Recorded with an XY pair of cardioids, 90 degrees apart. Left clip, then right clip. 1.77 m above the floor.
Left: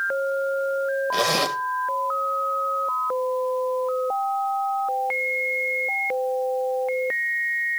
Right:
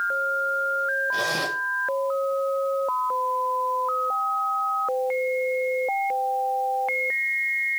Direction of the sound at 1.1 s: 60° left.